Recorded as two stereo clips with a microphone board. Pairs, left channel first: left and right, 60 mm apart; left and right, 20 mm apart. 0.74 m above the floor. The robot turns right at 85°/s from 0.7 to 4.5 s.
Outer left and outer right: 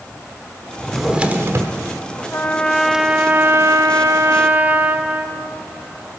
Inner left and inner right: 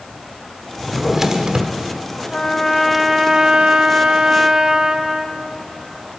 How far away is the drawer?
About 1.0 m.